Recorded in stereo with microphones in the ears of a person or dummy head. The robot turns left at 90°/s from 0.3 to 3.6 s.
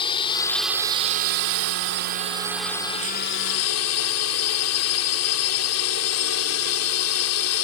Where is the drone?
30° left; by 7.6 s 95° left.